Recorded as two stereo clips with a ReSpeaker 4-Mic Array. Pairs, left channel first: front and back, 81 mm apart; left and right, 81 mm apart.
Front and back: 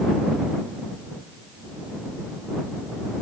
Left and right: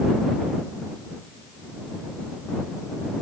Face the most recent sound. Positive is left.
No sound to turn to.